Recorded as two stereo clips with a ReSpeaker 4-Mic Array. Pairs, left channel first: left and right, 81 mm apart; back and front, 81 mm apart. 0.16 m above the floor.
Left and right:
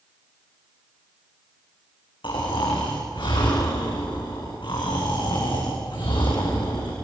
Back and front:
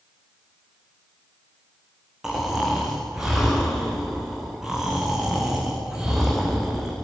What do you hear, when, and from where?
2.2 s snoring: 85° left, 6 m